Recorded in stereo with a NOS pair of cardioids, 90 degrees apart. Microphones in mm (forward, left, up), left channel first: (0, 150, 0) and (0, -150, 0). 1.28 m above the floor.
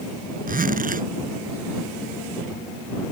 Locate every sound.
0.5 s a zipper: 30° right